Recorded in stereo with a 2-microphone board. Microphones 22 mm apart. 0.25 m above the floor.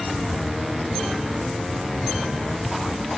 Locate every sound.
Only background noise.